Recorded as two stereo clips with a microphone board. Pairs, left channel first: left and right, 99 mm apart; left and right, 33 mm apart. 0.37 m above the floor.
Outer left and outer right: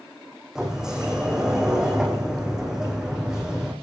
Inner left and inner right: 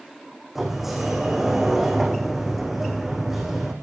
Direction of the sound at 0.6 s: 5° right (ahead or behind).